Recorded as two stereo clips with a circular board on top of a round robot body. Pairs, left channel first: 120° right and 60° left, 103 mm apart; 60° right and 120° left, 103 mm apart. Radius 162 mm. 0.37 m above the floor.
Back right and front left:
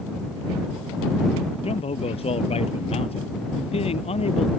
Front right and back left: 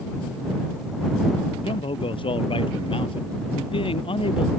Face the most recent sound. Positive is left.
turn(degrees=-95)